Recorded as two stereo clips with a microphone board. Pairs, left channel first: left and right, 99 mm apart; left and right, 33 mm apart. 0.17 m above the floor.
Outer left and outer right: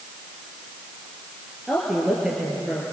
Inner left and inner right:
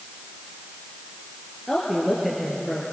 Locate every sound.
1.7 s a woman speaking: 5° right (ahead or behind), 3.5 m